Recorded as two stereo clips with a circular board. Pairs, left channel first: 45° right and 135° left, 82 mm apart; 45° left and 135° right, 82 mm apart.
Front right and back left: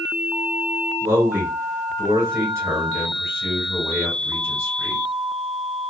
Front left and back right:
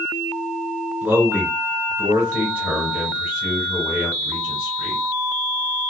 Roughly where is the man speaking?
Behind.